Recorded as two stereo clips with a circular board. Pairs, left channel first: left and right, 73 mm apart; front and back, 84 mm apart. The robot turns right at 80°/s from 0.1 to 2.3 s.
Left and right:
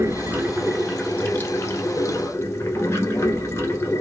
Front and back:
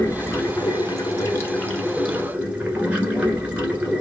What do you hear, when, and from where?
0.0 s running water: 60° right, 1.0 m; by 4.0 s 115° left, 1.0 m